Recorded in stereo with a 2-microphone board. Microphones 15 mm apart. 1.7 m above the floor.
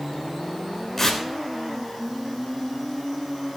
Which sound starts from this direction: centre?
Tearing paper, at 1.0 s.